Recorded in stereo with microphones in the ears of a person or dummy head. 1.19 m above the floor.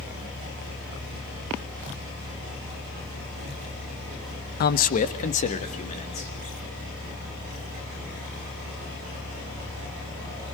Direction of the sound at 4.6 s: 50° left (ahead or behind).